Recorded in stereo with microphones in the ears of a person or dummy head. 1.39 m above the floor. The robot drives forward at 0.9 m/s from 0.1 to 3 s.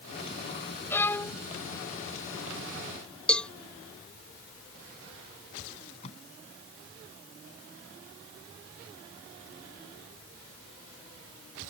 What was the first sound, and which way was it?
A violin, 15° left (ahead or behind).